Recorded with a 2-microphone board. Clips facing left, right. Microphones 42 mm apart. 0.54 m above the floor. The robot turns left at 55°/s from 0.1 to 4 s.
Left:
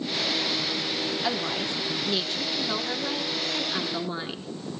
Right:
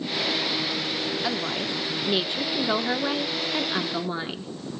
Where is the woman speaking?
5° right, 1.3 m; by 4.5 s 160° right, 1.3 m.